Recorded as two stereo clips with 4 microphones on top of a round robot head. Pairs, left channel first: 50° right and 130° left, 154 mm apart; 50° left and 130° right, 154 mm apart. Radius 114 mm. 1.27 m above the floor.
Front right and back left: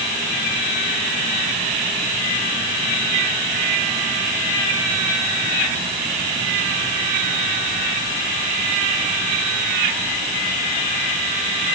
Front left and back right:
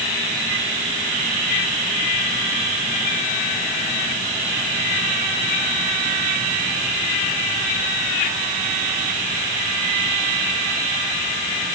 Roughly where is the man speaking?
I don't hear a man speaking.